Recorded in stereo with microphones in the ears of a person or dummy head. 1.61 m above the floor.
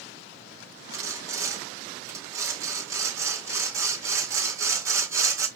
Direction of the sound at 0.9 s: 15° right (ahead or behind).